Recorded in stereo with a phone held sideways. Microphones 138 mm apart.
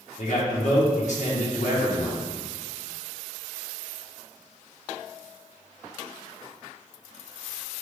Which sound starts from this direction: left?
A man speaking, at 0.2 s.